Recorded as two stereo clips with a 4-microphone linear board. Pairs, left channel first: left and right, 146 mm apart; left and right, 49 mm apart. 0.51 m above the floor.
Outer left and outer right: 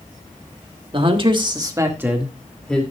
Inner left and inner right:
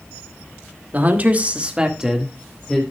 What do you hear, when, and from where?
0.9 s a man speaking: 35° right (ahead or behind), 1.8 m; by 2.8 s 5° left (ahead or behind), 2.0 m